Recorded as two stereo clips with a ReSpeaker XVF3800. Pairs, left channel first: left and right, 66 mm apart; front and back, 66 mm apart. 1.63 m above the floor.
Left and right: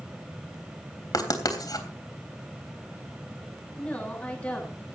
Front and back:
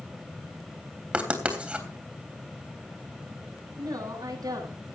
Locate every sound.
1.1 s writing: 105° left, 3.5 m
3.8 s a woman speaking: 160° left, 7.5 m